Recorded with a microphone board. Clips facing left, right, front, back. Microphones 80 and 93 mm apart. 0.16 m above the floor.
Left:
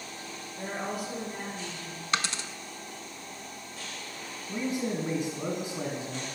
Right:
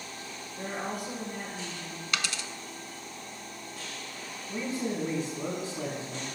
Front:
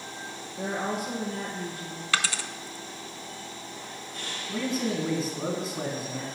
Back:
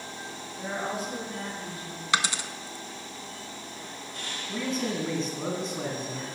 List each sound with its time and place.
0.6 s a woman speaking: 5° left, 3.5 m
2.1 s a dropped coin: 120° left, 0.5 m
4.5 s a man speaking: 75° left, 1.4 m